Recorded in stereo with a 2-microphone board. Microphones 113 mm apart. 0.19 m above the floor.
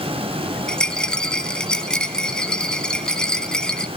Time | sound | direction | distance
0.7 | a rattle | 5° left (ahead or behind) | 2.0 m